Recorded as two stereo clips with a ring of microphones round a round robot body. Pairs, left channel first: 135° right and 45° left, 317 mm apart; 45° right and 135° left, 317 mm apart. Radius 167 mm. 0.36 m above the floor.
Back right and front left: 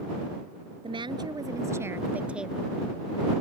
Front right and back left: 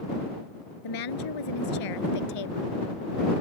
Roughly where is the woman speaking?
Ahead right.